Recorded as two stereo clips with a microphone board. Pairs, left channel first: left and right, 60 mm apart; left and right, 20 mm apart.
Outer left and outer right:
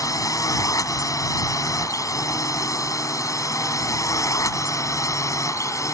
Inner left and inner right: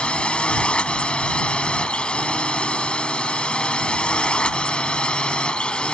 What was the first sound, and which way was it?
A drone, 65° left (ahead or behind).